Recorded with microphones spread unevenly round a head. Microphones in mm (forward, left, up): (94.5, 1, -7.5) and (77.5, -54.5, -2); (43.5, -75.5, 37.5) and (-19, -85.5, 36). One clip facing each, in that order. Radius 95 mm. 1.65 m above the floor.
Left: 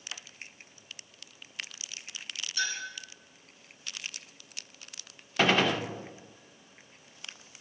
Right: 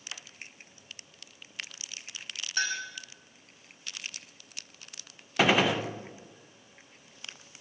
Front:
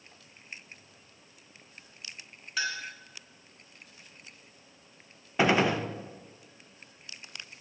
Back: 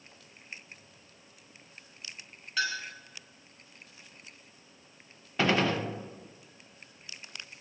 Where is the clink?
75° right, 5.5 m.